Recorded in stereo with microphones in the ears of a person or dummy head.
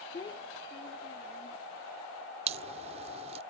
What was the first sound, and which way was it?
A child speaking, 30° left (ahead or behind).